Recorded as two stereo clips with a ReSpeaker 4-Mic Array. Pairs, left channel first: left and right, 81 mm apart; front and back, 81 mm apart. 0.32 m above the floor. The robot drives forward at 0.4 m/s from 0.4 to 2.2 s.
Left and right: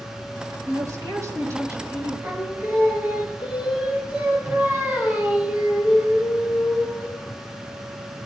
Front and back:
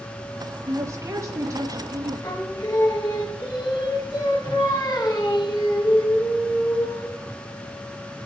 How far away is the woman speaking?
About 3 m.